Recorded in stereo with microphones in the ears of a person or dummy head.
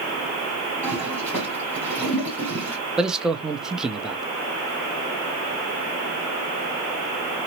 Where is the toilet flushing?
5° right (ahead or behind), 1.8 m.